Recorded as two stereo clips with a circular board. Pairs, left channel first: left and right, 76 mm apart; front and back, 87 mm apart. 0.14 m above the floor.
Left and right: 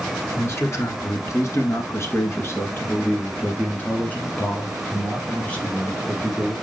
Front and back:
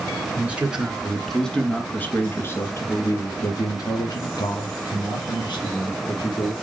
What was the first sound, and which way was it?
A man speaking, 115° left.